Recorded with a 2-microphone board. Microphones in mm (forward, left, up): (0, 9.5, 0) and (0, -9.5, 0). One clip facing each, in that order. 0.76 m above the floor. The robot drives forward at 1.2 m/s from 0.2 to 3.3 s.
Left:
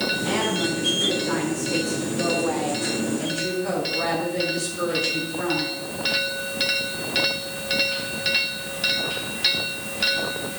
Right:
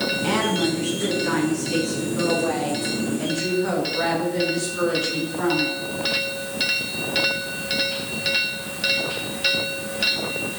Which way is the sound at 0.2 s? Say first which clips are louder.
Right 2 dB; 45° right (ahead or behind).